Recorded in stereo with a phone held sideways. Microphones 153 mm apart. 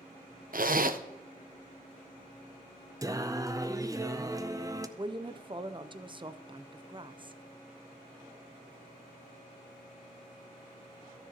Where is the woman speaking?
35° right (ahead or behind), 0.5 m.